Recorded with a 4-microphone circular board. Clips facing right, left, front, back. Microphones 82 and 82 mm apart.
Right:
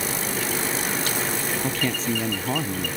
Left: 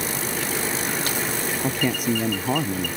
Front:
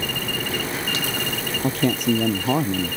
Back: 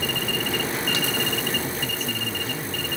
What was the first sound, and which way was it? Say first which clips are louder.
A man speaking: left 4 dB, front 9 dB; 15° left.